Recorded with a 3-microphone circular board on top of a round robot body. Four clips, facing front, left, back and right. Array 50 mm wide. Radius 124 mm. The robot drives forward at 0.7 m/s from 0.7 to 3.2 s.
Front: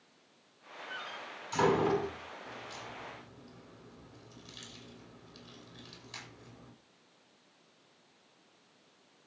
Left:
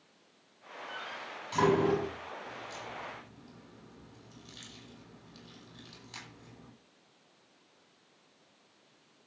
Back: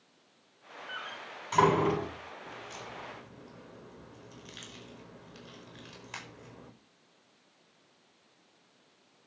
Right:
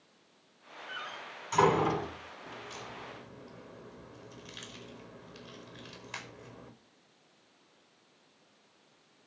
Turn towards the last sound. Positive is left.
turn(degrees=-145)